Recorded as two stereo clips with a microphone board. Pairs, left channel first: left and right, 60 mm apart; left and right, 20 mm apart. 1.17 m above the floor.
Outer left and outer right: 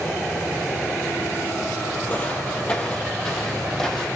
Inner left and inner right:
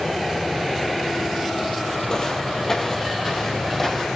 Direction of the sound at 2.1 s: 30° left (ahead or behind).